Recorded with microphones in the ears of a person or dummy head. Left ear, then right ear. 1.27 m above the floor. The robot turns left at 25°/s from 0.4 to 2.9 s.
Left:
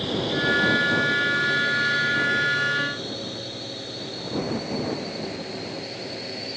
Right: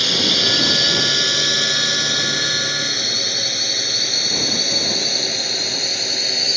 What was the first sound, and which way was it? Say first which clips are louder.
A drone: right 10 dB; 55° right (ahead or behind).